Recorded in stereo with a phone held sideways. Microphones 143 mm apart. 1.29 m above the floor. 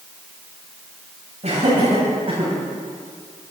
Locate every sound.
1.4 s laughter: 50° right (ahead or behind), 8 m; by 2.5 s 40° right (ahead or behind), 9 m